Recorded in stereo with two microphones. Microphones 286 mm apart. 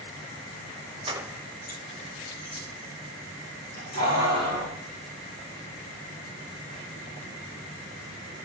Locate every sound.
1.1 s keys jangling: 20° right (ahead or behind), 0.6 m; by 4.8 s 70° left (ahead or behind), 3 m